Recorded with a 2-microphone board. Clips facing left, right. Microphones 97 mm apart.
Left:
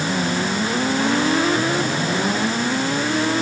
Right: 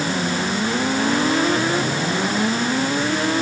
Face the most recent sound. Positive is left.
No sound to turn to.